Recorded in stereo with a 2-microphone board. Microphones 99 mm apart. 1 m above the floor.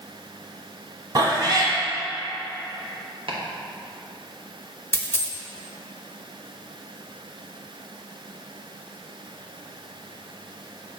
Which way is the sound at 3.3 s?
70° right (ahead or behind).